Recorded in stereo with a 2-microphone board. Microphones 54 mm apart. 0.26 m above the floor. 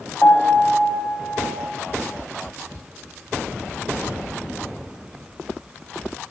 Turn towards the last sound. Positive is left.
turn(degrees=40)  # may be behind; listen again after turning